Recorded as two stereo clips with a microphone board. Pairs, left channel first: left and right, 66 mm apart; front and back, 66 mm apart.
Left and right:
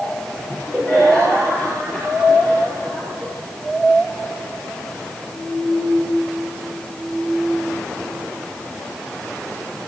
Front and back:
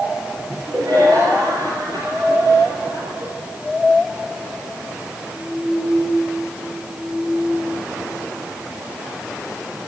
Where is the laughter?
175° left, 6 m; by 3.3 s 150° left, 6.5 m.